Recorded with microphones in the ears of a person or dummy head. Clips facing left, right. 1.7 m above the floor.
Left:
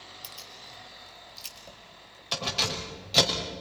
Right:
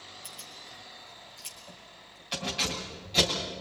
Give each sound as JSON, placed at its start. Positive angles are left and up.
{"t": 0.2, "sound": "keys jangling", "side_deg": 55, "distance_m": 3.5}